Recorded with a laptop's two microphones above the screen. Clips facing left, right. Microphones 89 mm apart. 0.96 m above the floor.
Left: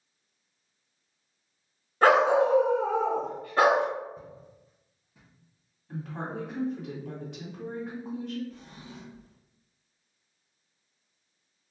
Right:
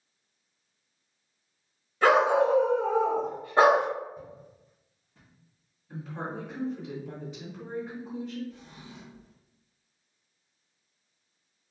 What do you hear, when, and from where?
2.0 s a dog barking: 40° left (ahead or behind), 0.9 m; by 3.9 s 35° right (ahead or behind), 0.9 m
4.2 s footsteps: 30° left (ahead or behind), 1.6 m; by 5.3 s 5° left (ahead or behind), 1.1 m
5.9 s a woman speaking: 70° left (ahead or behind), 1.8 m
8.5 s a drawer: 50° left (ahead or behind), 1.4 m